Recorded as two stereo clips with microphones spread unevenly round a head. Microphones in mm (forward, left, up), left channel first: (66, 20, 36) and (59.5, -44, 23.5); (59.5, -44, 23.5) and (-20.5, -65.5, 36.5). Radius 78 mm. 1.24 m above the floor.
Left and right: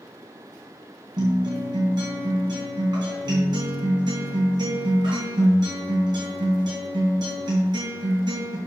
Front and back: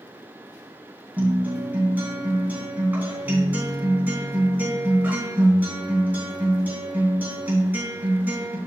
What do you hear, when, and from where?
1.2 s a guitar: 100° right, 3 m